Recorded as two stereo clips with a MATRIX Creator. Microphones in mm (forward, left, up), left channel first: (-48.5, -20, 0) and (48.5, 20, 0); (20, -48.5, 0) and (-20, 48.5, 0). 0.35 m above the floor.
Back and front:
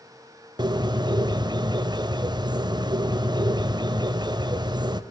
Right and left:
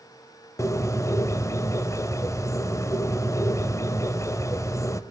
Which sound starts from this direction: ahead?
A bird, at 0.6 s.